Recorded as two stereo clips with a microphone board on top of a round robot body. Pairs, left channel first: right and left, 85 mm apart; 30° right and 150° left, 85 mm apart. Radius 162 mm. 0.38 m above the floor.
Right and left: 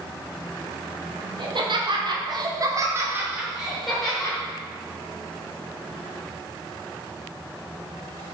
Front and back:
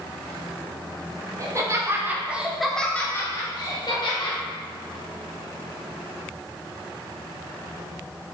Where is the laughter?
105° left, 1.9 m; by 4.4 s 10° right, 2.0 m.